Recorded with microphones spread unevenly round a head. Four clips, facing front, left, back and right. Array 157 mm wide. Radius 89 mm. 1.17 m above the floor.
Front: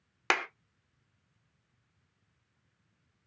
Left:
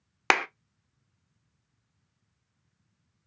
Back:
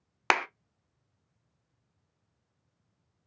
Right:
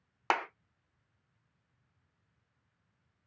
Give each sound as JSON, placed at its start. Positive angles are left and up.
{"t": 0.3, "sound": "a clap", "azimuth_deg": 105, "distance_m": 0.5}